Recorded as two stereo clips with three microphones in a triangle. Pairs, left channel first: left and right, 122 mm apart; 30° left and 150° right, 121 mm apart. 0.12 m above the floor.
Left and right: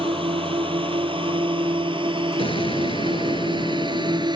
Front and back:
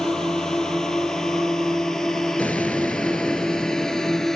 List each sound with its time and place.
0.0 s a drone: 55° right
2.4 s an explosion: 105° left